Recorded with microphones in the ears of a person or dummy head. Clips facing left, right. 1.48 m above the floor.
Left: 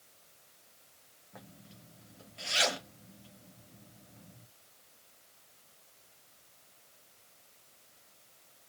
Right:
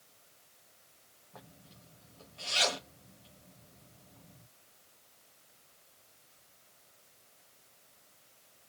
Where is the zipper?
25° left (ahead or behind), 1.4 m.